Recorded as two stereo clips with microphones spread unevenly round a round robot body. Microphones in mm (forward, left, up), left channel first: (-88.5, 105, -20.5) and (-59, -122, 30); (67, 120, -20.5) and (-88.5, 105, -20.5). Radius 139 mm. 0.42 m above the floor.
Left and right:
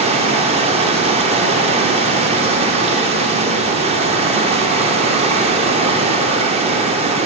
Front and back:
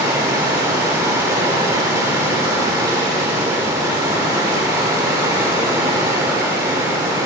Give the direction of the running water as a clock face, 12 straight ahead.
5 o'clock.